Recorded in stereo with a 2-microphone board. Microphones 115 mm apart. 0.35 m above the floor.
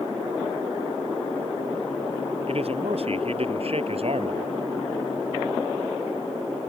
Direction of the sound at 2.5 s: 55° right (ahead or behind).